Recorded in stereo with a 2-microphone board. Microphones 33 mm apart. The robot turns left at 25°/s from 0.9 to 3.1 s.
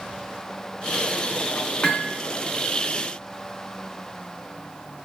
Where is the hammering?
25° left (ahead or behind), 2.5 m; by 2.2 s 35° left (ahead or behind), 2.5 m.